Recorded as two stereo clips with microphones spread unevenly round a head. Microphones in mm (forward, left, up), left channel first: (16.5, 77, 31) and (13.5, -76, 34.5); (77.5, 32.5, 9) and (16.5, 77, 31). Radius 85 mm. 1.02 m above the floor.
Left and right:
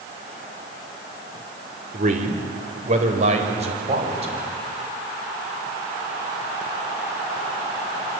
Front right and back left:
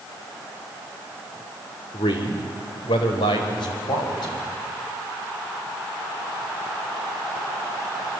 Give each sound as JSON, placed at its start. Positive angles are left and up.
{"t": 1.9, "sound": "a man speaking", "azimuth_deg": -60, "distance_m": 3.5}